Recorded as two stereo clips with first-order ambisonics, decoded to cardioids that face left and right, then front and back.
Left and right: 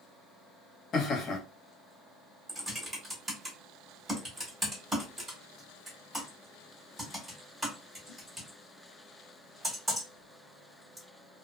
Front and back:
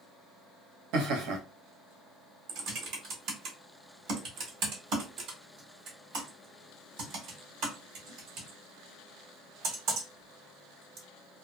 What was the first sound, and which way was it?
Laughter, 150° left.